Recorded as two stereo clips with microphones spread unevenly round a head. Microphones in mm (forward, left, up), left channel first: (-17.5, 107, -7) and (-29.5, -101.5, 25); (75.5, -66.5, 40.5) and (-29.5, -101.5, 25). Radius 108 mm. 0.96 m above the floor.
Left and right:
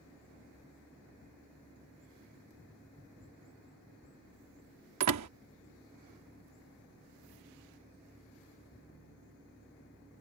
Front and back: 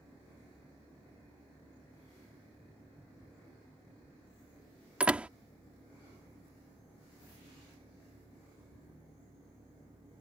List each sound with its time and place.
5.0 s a door slam: 80° right